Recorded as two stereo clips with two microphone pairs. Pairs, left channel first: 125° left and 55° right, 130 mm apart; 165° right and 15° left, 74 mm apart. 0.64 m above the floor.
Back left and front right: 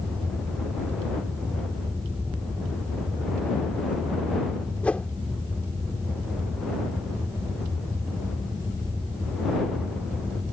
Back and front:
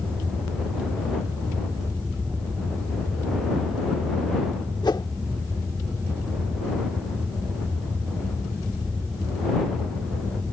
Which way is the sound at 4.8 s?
155° right.